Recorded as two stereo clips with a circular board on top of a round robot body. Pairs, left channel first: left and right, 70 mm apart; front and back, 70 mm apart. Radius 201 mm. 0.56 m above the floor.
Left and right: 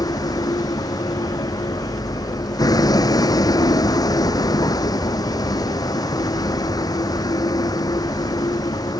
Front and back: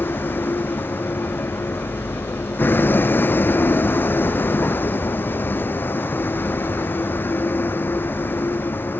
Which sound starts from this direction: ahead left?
A vehicle, at 0.0 s.